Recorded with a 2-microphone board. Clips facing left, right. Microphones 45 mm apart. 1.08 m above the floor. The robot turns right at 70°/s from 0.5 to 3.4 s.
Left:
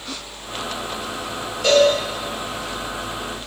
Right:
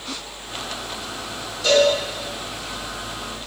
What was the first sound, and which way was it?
A cowbell, 45° left (ahead or behind).